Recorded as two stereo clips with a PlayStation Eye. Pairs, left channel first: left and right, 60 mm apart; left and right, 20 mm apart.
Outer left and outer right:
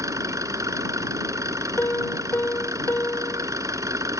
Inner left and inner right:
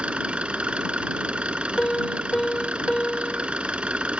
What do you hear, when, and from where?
0.0 s an engine running: 70° right (ahead or behind)
1.8 s a piano: 45° left (ahead or behind)